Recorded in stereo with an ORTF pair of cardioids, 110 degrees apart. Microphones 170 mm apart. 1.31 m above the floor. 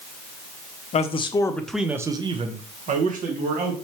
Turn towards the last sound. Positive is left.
turn(degrees=-60)